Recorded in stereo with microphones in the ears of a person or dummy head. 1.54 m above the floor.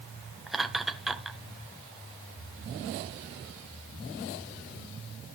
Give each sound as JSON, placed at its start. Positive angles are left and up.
{"t": 0.5, "sound": "laughter", "side_deg": -5, "distance_m": 1.5}